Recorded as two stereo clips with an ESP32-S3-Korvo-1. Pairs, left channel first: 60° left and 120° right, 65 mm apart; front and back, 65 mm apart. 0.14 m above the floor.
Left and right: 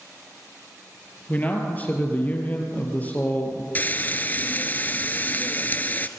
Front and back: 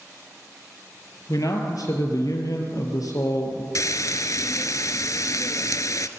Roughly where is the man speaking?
Ahead.